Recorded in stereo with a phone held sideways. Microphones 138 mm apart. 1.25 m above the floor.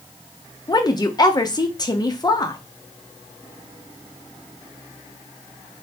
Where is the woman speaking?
30° left (ahead or behind), 0.6 m.